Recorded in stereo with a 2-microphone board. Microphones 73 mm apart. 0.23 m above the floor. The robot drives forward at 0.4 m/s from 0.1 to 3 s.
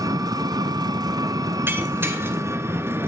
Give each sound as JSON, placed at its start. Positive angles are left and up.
{"t": 0.0, "sound": "an engine running", "side_deg": -60, "distance_m": 0.8}
{"t": 1.7, "sound": "breaking glass", "side_deg": -30, "distance_m": 2.5}